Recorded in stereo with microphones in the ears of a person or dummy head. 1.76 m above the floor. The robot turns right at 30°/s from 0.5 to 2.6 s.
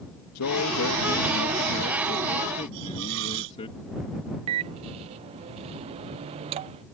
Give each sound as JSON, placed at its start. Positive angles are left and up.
{"t": 0.3, "sound": "a man speaking", "azimuth_deg": 90}
{"t": 2.7, "sound": "a hiss", "side_deg": -70}
{"t": 4.5, "sound": "a microwave", "side_deg": -35}